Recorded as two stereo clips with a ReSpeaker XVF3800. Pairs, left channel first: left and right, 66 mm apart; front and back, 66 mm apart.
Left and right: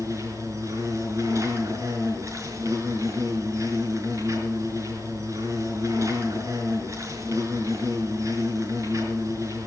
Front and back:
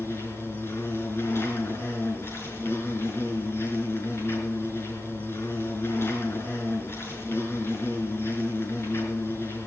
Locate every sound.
0.0 s an insect: 50° right, 4.5 m